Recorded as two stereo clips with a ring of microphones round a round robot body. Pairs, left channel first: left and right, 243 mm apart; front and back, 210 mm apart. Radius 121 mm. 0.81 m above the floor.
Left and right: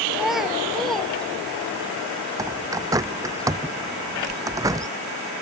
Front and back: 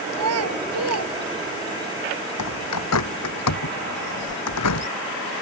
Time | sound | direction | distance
0.1 | a child speaking | straight behind | ?
2.4 | a bird | 15° right | ?